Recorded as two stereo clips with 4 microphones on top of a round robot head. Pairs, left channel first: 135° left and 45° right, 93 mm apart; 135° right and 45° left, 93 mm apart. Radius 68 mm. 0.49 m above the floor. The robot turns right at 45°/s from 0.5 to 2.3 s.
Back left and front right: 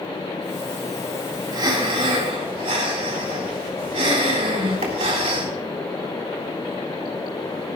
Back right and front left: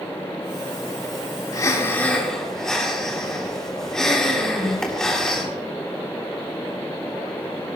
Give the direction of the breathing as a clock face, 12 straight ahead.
3 o'clock.